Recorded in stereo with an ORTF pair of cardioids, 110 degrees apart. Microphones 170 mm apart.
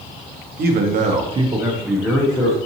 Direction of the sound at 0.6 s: 65° right.